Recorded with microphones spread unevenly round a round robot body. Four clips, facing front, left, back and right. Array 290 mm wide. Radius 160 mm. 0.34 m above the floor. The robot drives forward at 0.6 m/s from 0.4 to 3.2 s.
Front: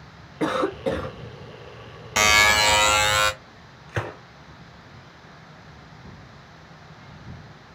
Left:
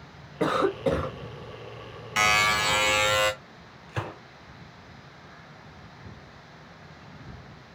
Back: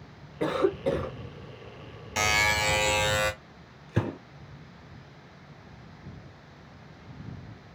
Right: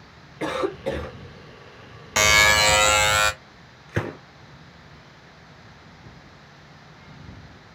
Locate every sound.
0.4 s a cough: 60° left, 2 m; by 1.2 s 75° left, 1.9 m
2.2 s a buzzer: 50° right, 0.6 m; by 3.3 s 145° right, 0.6 m
3.9 s a gunshot: 140° right, 0.9 m